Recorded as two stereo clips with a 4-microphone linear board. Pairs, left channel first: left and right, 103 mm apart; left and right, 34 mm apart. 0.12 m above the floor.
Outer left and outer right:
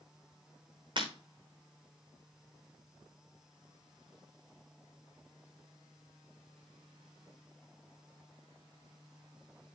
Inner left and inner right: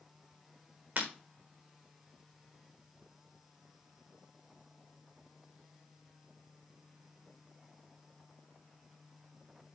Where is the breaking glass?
50° right (ahead or behind), 4.5 m.